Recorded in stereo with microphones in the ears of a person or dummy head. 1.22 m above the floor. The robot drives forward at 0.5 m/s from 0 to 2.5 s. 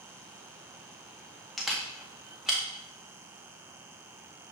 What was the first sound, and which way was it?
A camera shutter, 5° left (ahead or behind).